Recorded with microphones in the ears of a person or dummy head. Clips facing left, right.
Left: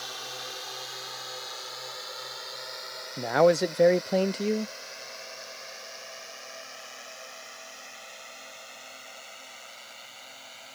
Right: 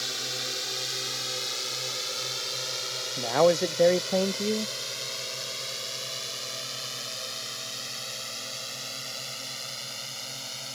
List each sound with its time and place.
0.0 s a drone: 30° right (ahead or behind); by 10.8 s 60° right (ahead or behind)
3.2 s a man speaking: 5° left (ahead or behind)